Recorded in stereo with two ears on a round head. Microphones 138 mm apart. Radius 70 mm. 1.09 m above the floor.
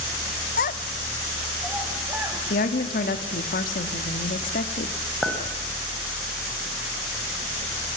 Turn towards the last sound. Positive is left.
turn(degrees=5)  # may be behind; listen again after turning